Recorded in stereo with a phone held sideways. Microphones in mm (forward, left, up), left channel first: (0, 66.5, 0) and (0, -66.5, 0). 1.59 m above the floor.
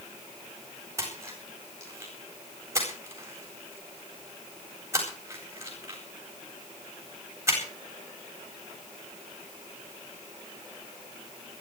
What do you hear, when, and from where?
1.0 s a splash: 20° right (ahead or behind), 9 m